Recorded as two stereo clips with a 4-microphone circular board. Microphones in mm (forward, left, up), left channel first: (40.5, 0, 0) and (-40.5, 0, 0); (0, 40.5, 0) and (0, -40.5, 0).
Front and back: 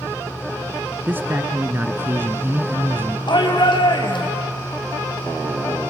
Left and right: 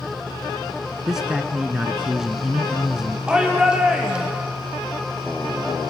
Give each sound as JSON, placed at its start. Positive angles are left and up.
{"t": 1.1, "sound": "a man speaking", "azimuth_deg": -165, "distance_m": 1.3}
{"t": 3.3, "sound": "a shout", "azimuth_deg": -10, "distance_m": 4.5}